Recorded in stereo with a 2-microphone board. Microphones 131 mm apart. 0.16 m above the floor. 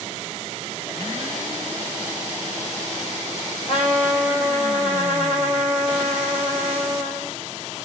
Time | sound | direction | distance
3.7 | a trumpet | 50° left (ahead or behind) | 6 m